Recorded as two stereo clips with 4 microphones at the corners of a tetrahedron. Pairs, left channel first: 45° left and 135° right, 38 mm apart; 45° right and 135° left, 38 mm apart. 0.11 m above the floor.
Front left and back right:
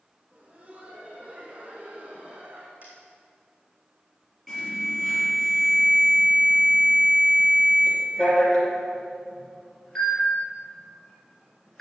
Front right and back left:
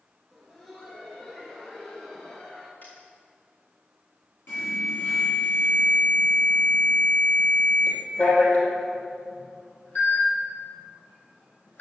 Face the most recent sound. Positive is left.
turn(degrees=-30)